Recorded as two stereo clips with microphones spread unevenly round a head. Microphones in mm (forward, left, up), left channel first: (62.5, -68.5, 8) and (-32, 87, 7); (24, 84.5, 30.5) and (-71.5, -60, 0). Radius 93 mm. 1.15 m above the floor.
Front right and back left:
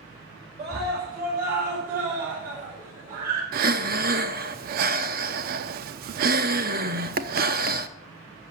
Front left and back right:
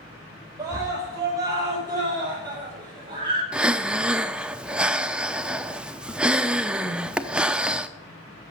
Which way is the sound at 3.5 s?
145° left.